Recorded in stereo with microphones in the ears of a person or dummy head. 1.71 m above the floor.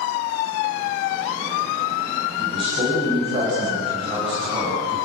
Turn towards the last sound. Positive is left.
turn(degrees=-40)  # may be behind; listen again after turning